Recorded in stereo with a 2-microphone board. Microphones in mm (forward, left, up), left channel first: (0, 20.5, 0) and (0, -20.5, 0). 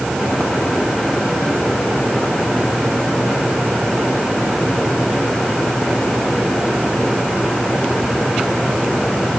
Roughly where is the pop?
No pop in this recording.